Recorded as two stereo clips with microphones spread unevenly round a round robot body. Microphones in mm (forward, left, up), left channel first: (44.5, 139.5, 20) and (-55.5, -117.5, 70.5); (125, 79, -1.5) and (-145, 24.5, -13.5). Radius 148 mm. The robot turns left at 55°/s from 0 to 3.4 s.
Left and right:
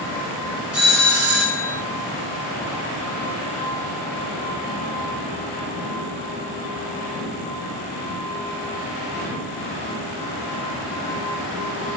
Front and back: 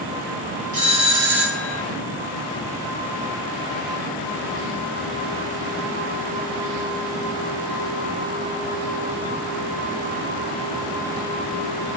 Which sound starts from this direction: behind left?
A doorbell, at 0.7 s.